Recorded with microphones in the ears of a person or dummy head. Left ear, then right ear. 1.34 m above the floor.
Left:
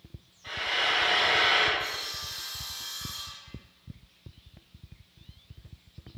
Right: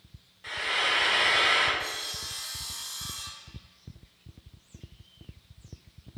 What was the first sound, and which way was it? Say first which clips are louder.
Frying: even; 50° right (ahead or behind).